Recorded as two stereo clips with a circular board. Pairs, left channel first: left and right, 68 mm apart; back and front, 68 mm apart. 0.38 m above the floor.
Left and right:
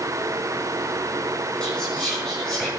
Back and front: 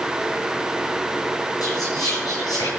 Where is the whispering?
170° left, 3.5 m.